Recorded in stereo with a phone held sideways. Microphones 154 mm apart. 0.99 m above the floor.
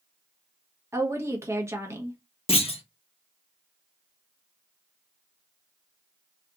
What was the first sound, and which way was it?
A woman speaking, 15° right (ahead or behind).